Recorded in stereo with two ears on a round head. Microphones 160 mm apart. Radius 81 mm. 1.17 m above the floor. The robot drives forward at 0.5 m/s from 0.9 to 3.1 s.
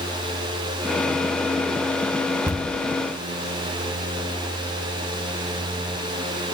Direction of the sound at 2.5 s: 15° right (ahead or behind).